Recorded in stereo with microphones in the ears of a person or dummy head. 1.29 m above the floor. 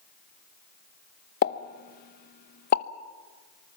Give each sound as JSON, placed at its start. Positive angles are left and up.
{"t": 1.4, "sound": "a pop", "side_deg": 50, "distance_m": 0.9}